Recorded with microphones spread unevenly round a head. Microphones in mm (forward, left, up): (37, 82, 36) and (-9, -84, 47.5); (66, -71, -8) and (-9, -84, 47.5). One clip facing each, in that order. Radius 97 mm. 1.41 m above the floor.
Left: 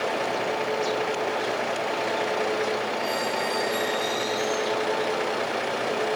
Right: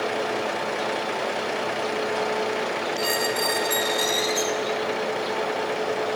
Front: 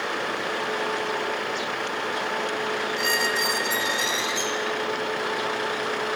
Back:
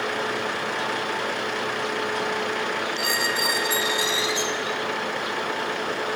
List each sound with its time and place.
3.0 s a squeak: 95° right, 3 m